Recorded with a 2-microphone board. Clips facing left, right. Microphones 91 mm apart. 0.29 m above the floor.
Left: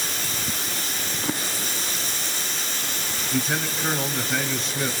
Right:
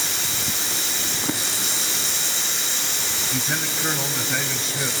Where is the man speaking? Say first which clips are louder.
Left 3 dB; centre (ahead or behind), 1.9 m.